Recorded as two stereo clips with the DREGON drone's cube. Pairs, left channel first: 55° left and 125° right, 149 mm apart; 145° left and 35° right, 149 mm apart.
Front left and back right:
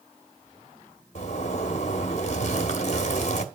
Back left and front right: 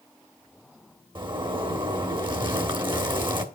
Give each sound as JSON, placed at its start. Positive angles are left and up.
{"t": 1.1, "sound": "a zipper", "azimuth_deg": 20, "distance_m": 1.3}